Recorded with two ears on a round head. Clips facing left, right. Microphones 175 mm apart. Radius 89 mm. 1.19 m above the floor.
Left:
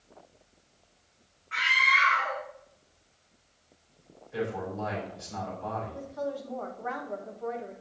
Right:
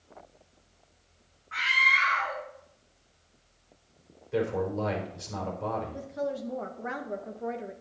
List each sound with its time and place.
1.5 s a scream: 30° left (ahead or behind), 2.5 m
4.3 s a man speaking: 60° right (ahead or behind), 4 m
5.9 s a woman speaking: 25° right (ahead or behind), 1.3 m